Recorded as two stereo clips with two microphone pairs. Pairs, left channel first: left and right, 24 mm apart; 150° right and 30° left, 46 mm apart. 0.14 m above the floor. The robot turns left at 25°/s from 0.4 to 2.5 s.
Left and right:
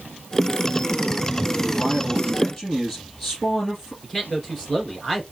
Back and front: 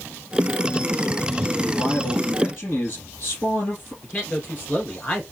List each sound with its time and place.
1.6 s a man speaking: 165° right, 2.5 m; by 3.9 s 170° left, 2.5 m
4.0 s a man speaking: 155° left, 2.5 m